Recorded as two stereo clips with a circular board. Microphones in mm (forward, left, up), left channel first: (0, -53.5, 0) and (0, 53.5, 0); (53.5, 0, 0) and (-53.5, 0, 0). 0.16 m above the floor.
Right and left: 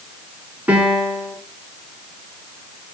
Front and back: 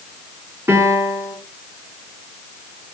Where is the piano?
150° left, 1.4 m.